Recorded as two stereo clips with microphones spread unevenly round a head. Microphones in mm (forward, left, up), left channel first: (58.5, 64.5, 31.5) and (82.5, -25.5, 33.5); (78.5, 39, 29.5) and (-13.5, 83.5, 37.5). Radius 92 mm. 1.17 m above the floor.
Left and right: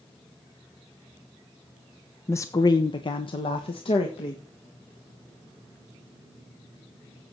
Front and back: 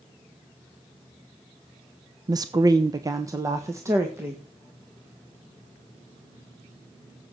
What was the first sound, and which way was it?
A woman speaking, 145° left.